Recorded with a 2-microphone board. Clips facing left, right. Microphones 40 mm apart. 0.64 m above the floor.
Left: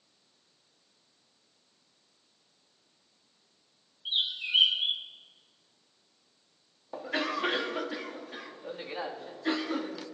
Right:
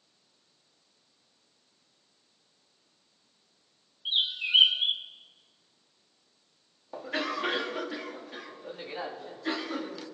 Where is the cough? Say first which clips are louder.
Even; 5° left (ahead or behind), 1.1 m.